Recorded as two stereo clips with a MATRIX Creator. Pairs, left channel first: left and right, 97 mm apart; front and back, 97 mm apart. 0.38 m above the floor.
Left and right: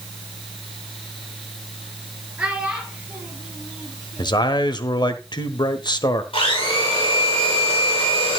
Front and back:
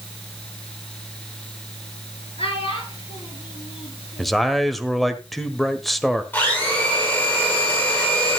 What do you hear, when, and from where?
2.4 s a child speaking: 10° right, 4 m; by 4.5 s straight ahead, 6 m
4.2 s a man speaking: 90° left, 1.3 m
6.3 s a blender: 70° left, 6.5 m